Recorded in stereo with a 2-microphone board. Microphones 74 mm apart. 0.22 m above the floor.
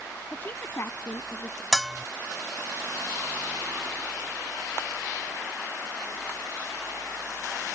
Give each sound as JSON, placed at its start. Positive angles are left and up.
{"t": 0.3, "sound": "a woman speaking", "side_deg": 20}
{"t": 1.7, "sound": "a bell", "side_deg": 0}